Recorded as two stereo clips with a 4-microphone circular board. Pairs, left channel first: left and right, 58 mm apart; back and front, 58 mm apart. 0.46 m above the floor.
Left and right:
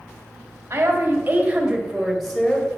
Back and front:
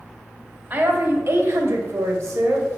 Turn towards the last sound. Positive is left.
turn(degrees=20)